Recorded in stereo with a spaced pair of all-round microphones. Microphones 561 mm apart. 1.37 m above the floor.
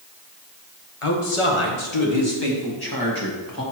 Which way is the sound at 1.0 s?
75° left (ahead or behind).